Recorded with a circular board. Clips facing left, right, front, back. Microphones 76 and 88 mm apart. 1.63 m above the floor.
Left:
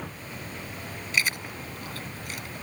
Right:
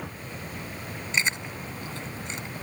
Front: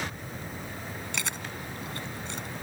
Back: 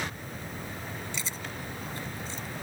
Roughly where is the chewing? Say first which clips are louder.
Even, front 2 dB; ahead right.